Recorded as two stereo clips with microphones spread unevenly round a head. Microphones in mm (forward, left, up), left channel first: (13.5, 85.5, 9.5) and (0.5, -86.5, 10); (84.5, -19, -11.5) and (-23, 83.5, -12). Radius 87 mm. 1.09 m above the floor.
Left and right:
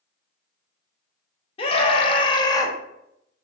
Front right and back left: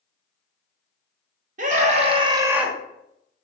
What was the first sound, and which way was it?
A scream, 135° left.